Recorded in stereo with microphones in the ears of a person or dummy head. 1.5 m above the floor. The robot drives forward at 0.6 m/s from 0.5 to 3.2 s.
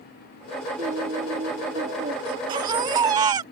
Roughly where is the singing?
Right.